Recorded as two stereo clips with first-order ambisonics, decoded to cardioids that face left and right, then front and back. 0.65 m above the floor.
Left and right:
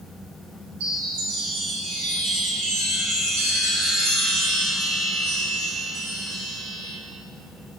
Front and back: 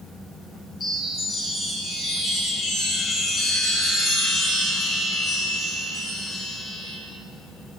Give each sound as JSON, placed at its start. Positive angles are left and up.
{"t": 0.8, "sound": "a chime", "azimuth_deg": -80, "distance_m": 7.0}